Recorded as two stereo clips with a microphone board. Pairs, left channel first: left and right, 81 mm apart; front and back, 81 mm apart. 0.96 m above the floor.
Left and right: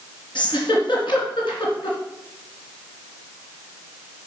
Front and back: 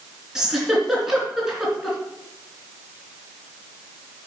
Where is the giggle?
95° left, 3 m.